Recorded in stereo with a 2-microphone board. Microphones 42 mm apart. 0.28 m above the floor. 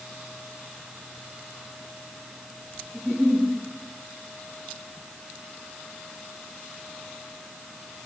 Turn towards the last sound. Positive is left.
turn(degrees=0)  # may be behind; listen again after turning